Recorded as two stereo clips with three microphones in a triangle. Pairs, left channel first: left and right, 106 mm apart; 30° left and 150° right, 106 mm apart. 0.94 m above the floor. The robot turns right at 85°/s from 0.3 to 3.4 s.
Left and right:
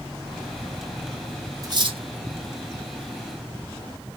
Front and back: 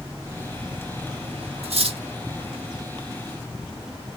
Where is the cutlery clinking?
145° right, 0.8 m; by 2.0 s 115° right, 0.8 m.